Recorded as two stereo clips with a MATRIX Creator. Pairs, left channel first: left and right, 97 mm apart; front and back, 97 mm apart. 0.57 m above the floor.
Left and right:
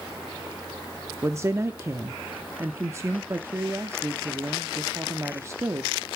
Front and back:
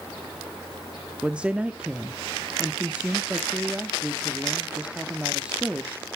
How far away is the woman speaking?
About 0.6 m.